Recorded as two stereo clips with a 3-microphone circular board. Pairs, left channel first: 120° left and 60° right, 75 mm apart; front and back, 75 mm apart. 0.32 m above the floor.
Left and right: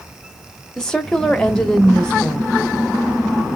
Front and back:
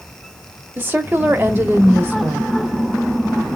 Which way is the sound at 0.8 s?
170° right.